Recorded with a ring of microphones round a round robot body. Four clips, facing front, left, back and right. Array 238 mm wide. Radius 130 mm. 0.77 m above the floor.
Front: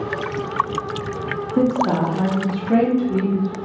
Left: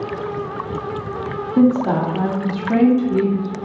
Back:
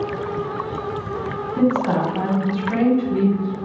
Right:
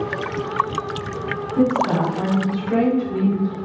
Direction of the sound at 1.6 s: 55° left.